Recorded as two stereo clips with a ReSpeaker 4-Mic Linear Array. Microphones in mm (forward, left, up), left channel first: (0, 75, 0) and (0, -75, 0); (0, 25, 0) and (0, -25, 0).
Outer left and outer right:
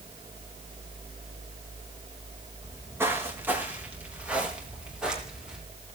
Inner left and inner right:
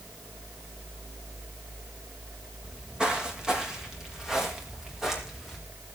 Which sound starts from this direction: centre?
Footsteps, at 2.6 s.